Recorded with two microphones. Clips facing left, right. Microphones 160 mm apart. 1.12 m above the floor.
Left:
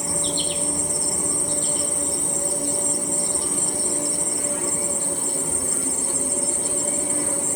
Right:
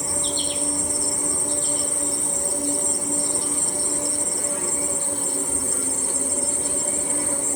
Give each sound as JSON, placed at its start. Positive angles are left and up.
{"t": 0.0, "sound": "an insect", "side_deg": 65, "distance_m": 2.5}